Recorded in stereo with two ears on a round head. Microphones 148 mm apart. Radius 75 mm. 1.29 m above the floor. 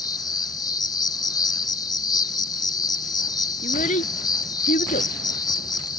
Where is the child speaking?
45° left (ahead or behind).